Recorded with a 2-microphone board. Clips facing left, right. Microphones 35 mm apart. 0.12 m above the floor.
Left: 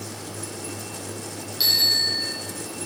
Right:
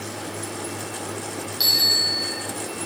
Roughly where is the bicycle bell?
Centre.